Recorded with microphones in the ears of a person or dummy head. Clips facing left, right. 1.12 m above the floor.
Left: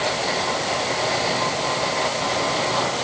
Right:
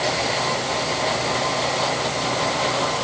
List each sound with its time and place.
Only background noise.